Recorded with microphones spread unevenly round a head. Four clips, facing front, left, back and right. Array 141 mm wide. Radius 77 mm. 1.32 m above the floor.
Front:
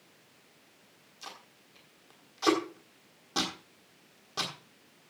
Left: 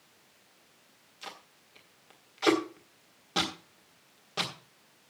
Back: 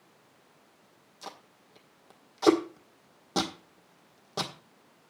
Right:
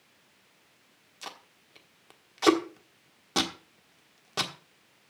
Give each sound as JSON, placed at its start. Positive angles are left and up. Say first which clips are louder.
{"t": 1.2, "sound": "tape being pulled", "louder": "right 2 dB, back 3 dB", "azimuth_deg": -160, "distance_m": 1.3}